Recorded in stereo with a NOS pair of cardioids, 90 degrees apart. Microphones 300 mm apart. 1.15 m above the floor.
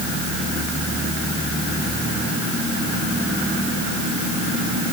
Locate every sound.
Only background noise.